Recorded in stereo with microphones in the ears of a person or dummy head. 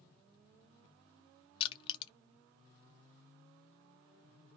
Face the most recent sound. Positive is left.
turn(degrees=30)  # may be behind; listen again after turning